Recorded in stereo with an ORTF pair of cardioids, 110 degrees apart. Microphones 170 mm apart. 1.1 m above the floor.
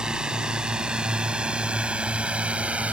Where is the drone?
5° right; by 2.9 s 10° right.